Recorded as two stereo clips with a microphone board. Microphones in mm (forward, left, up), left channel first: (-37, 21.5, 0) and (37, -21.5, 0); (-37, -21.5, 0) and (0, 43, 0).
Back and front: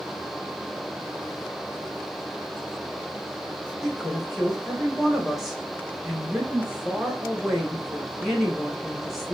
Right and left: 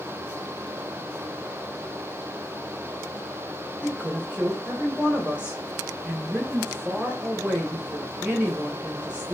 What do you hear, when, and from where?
3.8 s a woman speaking: 55° left, 0.9 m